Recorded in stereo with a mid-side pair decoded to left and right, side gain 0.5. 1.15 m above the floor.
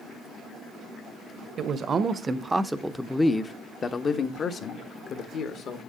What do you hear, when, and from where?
1.6 s a man speaking: 50° right, 1.0 m; by 5.8 s 60° left, 2 m